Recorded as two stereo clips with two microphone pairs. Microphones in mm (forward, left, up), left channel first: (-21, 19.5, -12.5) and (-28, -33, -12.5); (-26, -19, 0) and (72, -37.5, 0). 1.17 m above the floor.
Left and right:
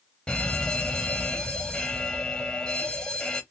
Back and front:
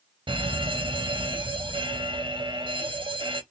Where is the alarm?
10° left, 0.8 m.